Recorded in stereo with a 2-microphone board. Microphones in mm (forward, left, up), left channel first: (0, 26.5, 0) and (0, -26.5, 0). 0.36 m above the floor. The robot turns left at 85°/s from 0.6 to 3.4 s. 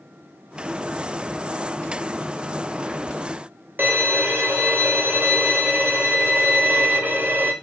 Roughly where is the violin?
Right.